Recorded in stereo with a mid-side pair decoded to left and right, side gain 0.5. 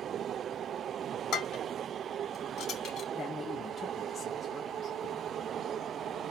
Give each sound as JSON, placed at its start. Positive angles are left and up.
{"t": 1.3, "sound": "dishes clattering", "azimuth_deg": 65, "distance_m": 4.5}
{"t": 3.1, "sound": "a man speaking", "azimuth_deg": 45, "distance_m": 2.5}